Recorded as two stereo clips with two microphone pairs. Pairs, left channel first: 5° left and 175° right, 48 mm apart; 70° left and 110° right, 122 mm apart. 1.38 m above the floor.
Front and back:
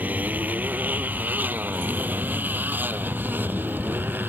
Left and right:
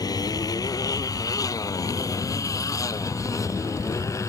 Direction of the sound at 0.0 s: 125° left.